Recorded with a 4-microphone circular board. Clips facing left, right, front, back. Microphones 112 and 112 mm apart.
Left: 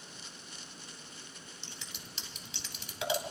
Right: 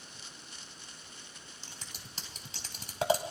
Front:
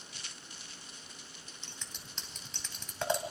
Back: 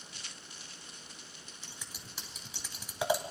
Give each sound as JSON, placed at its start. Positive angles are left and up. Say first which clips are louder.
{"t": 1.6, "sound": "scissors", "louder": "even, back 1 dB", "azimuth_deg": -105, "distance_m": 2.0}